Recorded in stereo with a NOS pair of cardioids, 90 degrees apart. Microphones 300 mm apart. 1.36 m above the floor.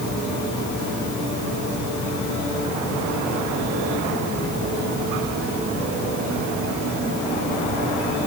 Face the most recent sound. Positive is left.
No sound to turn to.